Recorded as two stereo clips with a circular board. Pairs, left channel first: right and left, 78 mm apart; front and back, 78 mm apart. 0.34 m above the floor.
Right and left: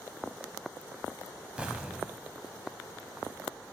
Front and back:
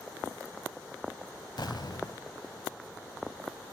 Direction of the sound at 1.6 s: 15° left.